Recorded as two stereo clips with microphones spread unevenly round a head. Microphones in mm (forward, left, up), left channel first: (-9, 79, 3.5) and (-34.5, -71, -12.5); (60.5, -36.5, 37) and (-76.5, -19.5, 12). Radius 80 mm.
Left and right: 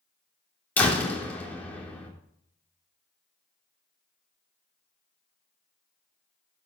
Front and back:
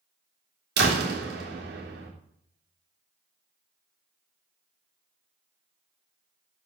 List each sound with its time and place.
0.8 s a door slam: 160° left, 3 m